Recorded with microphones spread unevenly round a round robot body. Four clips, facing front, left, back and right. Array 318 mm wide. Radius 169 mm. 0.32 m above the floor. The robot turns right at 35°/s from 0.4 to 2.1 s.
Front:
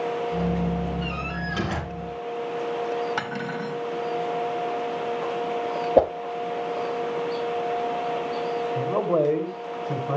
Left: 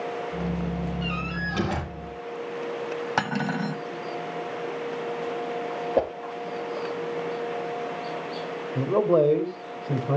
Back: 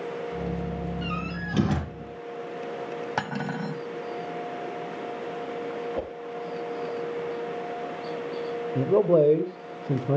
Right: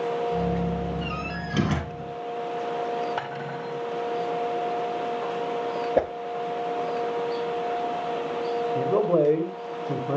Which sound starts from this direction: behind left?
Cutlery clinking, at 3.2 s.